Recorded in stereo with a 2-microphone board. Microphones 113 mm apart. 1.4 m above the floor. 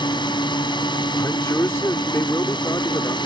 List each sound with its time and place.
0.0 s a drone: 40° left (ahead or behind)
1.2 s a man speaking: 25° left (ahead or behind)